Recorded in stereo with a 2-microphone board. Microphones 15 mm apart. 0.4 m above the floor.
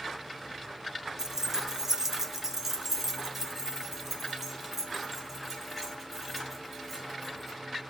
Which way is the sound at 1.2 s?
30° right (ahead or behind).